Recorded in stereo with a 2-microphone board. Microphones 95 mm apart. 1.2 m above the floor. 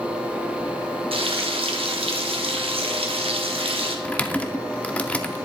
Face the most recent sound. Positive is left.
turn(degrees=15)  # may be behind; listen again after turning